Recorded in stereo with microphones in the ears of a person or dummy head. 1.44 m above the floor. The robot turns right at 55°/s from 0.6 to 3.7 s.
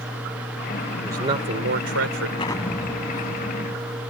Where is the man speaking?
170° right; by 2.3 s 100° right.